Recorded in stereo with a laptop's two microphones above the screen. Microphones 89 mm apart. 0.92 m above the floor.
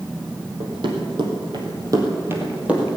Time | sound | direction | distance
0.6 | running footsteps | 70° right (ahead or behind) | 2.5 m